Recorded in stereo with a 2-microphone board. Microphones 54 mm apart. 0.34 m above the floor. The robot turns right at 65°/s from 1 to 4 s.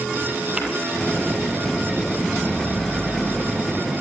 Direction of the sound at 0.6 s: 20° right (ahead or behind).